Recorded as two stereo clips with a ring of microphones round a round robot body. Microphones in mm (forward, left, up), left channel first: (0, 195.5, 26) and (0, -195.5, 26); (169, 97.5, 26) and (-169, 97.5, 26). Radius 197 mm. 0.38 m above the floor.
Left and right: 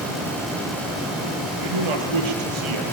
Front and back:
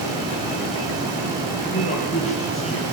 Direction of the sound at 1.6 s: 70° right.